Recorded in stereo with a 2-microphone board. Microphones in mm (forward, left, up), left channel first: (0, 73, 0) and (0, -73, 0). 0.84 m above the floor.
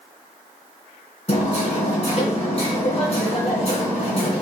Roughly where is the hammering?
Left.